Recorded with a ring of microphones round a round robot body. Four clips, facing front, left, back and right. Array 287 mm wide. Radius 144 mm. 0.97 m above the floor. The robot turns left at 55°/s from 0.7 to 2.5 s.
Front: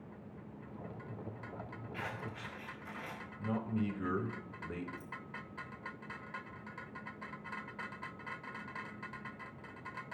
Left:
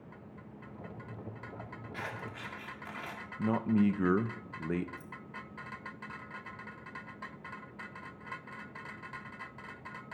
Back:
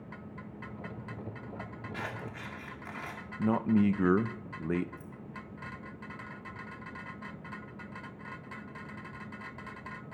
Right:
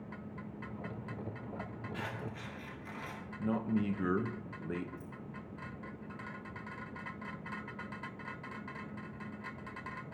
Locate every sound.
1.9 s scissors: 175° left, 2 m; by 3.2 s 145° left, 2 m
3.4 s a man speaking: 160° left, 0.6 m
5.0 s keys jangling: 120° left, 1.8 m